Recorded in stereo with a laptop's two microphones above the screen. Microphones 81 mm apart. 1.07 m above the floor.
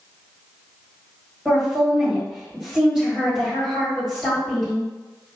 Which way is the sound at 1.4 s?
10° right (ahead or behind).